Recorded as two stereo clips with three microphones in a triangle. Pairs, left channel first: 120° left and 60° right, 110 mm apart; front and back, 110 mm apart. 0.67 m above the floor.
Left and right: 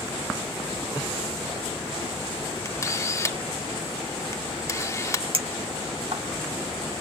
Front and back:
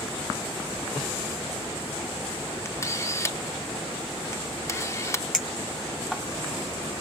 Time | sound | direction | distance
2.6 | a camera shutter | 60° left | 1.1 m
5.3 | a clink | 95° right | 2 m